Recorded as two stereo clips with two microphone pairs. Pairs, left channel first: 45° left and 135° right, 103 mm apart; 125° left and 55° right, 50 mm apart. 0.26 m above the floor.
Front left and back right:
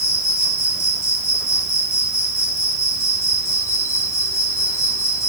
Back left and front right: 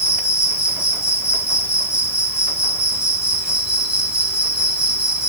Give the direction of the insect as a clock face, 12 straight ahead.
12 o'clock.